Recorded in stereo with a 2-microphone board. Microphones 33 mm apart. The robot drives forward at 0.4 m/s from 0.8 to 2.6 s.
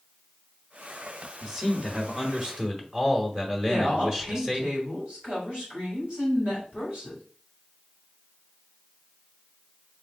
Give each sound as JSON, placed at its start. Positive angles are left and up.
{"t": 1.4, "sound": "a man speaking", "side_deg": -20, "distance_m": 0.9}
{"t": 3.6, "sound": "a woman speaking", "side_deg": -35, "distance_m": 2.0}